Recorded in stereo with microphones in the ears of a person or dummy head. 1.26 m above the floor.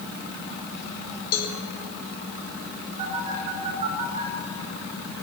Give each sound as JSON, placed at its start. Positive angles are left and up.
{"t": 1.3, "sound": "a cowbell", "side_deg": 50, "distance_m": 1.9}
{"t": 3.0, "sound": "a phone buzzing", "side_deg": -40, "distance_m": 3.5}